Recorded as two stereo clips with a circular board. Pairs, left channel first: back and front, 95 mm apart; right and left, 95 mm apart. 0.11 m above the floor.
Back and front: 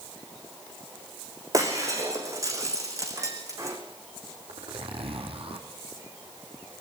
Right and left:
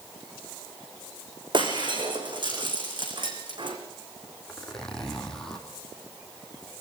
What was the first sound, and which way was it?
Breaking glass, 55° left.